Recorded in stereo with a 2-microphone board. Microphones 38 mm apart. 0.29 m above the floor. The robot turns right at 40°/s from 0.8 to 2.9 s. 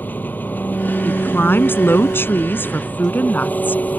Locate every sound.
0.0 s an engine running: 50° left; by 4.0 s 135° left
1.1 s a woman speaking: 50° left; by 3.8 s 125° left